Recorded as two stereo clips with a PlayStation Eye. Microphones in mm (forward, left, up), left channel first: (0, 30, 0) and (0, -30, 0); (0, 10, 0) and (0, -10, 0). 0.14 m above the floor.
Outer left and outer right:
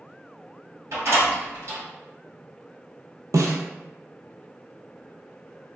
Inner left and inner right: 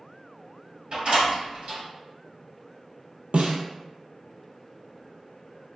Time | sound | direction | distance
0.9 | a door slam | 55° right (ahead or behind) | 1.5 m
3.3 | a snare drum | 85° right | 0.5 m